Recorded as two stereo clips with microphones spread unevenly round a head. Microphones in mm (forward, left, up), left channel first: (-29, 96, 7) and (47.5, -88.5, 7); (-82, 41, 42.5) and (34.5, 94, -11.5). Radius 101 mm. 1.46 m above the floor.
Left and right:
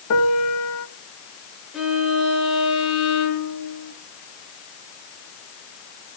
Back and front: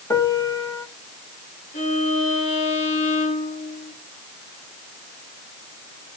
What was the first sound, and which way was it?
A piano, 135° left.